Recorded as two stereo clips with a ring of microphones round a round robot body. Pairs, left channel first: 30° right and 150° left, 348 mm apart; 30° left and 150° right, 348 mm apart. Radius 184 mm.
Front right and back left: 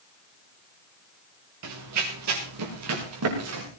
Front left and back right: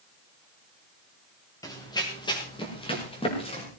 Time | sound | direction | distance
1.6 | running footsteps | 110° left | 5 m